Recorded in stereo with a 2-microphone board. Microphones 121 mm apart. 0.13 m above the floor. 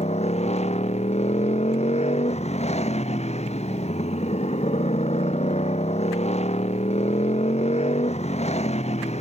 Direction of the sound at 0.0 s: 65° left (ahead or behind).